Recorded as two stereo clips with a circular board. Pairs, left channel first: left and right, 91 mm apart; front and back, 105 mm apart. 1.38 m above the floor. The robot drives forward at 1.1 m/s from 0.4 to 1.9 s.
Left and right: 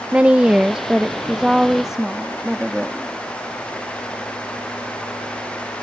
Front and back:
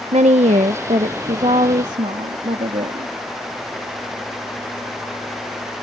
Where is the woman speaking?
165° right; by 3.1 s 175° right.